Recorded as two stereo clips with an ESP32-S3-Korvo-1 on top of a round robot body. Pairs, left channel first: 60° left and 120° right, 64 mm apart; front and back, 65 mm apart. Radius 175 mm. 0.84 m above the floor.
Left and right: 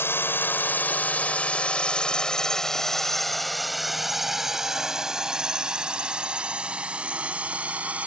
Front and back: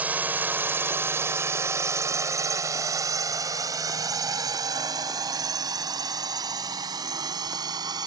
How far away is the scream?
I don't hear a scream.